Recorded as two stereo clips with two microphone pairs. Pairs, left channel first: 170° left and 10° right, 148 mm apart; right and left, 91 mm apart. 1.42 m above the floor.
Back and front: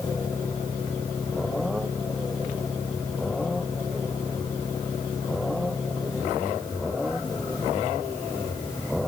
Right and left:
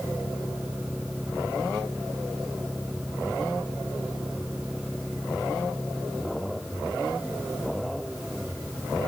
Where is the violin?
No violin in this recording.